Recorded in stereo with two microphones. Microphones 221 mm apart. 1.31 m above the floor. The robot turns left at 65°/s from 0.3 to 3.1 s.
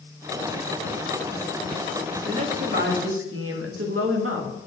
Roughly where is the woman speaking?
Ahead.